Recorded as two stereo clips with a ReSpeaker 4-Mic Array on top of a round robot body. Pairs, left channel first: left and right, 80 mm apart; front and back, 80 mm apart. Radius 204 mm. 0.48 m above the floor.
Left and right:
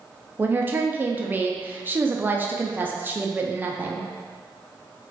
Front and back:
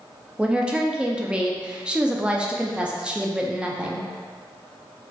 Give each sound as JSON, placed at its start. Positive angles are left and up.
{"t": 0.4, "sound": "a woman speaking", "azimuth_deg": -115, "distance_m": 0.7}